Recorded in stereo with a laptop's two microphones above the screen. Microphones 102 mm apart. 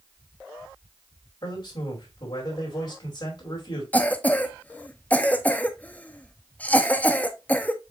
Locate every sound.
1.4 s a man speaking: 50° left (ahead or behind), 2.5 m
3.9 s a cough: 15° left (ahead or behind), 0.6 m